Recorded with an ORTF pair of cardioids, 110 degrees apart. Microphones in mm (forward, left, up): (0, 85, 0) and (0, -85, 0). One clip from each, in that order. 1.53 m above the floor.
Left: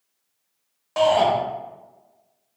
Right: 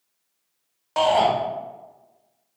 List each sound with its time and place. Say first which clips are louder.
1.0 s a shout: left 1 dB; 10° right, 0.9 m